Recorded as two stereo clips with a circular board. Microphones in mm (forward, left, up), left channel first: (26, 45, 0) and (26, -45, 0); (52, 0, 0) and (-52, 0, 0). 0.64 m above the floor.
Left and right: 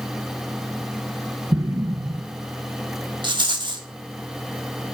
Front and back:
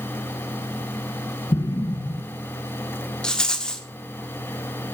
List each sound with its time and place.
1.5 s an explosion: 40° right, 0.9 m
3.2 s a rattle: 80° right, 1.4 m